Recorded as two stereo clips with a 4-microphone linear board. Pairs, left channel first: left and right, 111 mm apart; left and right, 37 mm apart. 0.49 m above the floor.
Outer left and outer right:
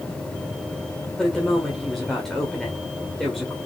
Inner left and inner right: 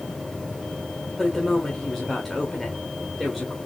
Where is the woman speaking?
5° left (ahead or behind), 1.7 m.